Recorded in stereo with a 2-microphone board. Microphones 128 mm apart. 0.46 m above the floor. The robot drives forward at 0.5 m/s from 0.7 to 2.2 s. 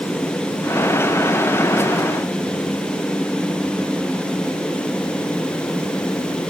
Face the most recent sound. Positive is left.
No sound to turn to.